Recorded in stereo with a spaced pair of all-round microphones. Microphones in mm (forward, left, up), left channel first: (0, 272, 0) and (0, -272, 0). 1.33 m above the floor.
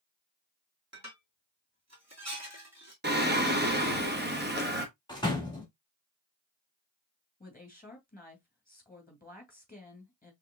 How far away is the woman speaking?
About 2.5 m.